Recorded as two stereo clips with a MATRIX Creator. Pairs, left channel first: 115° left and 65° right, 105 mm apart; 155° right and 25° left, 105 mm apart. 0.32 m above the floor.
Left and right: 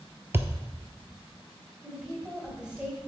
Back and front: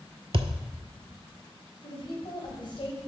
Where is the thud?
Straight ahead, 0.5 m.